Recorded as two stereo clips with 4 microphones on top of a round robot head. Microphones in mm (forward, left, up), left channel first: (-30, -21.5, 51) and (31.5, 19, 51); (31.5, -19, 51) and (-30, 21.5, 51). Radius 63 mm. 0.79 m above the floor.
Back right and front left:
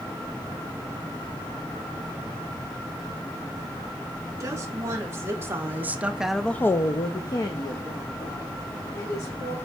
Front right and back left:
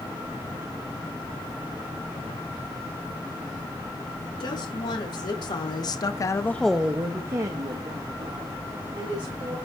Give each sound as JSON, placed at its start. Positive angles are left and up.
{"t": 4.4, "sound": "a woman speaking", "azimuth_deg": -15, "distance_m": 2.0}